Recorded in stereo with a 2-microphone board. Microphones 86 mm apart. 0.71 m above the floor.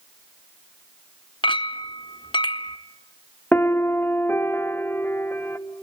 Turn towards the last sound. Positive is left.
turn(degrees=25)  # may be behind; listen again after turning